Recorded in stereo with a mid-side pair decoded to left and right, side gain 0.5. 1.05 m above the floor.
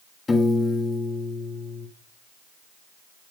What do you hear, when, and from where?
0.3 s a piano: 25° left, 1.2 m